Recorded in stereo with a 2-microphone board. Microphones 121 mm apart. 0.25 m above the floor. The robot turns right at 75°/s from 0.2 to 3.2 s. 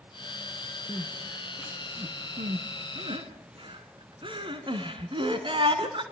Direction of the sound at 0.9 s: 40° left (ahead or behind).